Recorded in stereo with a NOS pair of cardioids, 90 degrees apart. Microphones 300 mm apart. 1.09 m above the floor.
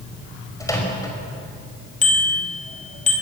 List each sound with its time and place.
0.6 s a microwave: 10° left, 5.5 m
2.0 s a bicycle bell: 25° left, 4.5 m